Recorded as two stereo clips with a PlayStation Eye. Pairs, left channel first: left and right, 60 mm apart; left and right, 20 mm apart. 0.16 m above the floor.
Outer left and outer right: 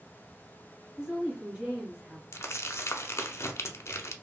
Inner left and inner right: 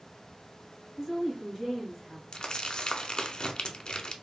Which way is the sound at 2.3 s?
50° left (ahead or behind).